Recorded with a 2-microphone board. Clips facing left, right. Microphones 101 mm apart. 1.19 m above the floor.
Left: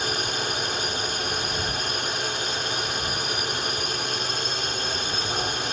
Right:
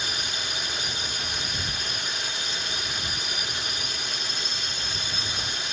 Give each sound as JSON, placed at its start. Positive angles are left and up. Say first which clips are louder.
{"t": 0.0, "sound": "a drone", "louder": "left 6 dB", "side_deg": 50}